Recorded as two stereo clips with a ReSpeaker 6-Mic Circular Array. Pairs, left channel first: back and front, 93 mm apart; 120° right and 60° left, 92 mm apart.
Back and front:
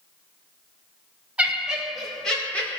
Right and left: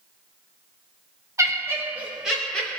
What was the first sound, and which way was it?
Laughter, 65° left.